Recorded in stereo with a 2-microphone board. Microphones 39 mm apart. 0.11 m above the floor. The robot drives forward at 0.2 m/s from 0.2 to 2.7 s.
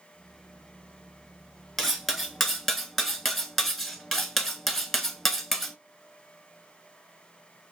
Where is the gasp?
No gasp in this recording.